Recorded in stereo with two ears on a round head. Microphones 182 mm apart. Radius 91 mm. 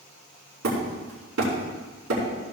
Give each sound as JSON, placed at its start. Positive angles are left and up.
{"t": 0.6, "sound": "hammering", "side_deg": -70, "distance_m": 5.0}